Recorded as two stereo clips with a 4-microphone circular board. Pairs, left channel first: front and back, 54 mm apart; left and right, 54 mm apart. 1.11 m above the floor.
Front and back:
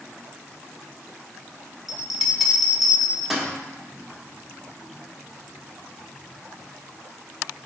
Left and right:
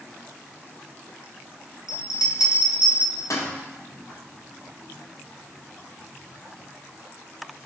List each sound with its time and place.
1.9 s a bell: 95° left, 0.6 m